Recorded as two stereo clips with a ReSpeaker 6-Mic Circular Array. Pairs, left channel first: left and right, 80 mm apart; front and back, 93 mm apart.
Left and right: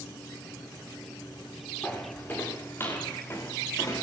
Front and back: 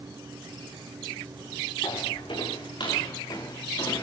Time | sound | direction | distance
1.8 | footsteps | 20° left | 7 m